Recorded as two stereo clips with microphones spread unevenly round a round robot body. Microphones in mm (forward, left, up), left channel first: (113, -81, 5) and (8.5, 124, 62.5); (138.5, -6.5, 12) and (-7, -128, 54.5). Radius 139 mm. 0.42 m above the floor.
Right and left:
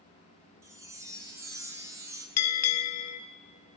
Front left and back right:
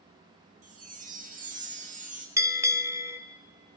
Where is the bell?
60° right, 0.7 m.